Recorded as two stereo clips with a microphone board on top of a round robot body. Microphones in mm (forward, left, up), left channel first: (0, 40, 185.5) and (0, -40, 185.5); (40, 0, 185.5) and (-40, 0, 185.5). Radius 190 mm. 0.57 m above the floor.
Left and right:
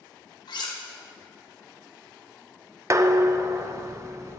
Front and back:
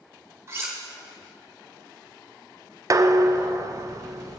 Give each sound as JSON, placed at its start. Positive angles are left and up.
{"t": 0.5, "sound": "cutlery clinking", "azimuth_deg": 120, "distance_m": 1.5}
{"t": 2.9, "sound": "dishes clattering", "azimuth_deg": -140, "distance_m": 0.6}